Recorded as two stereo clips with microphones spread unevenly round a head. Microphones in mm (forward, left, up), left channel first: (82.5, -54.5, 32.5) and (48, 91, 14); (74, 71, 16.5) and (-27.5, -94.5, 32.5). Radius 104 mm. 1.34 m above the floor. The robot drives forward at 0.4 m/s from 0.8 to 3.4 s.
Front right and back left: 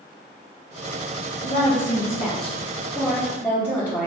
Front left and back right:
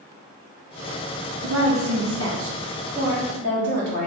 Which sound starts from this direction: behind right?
A woman speaking, at 1.4 s.